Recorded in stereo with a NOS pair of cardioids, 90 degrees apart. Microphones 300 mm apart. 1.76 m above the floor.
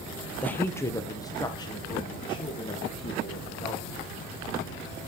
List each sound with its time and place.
0.4 s a woman speaking: 5° left, 0.9 m; by 4.0 s 20° left, 3.5 m